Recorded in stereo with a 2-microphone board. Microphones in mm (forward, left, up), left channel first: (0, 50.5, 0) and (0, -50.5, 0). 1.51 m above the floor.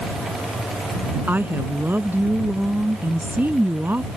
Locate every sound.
1.3 s a woman speaking: 20° right (ahead or behind)